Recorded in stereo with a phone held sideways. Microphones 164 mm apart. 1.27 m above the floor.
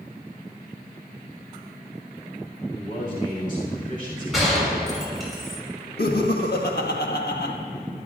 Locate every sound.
2.7 s a man speaking: 50° left (ahead or behind), 2.5 m
4.3 s a gunshot: centre (ahead or behind), 5.5 m
6.0 s laughter: 80° left, 1.6 m